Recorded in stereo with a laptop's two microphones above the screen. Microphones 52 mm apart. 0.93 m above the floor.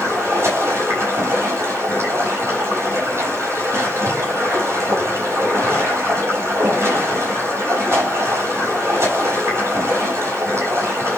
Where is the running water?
60° right (ahead or behind), 6 m.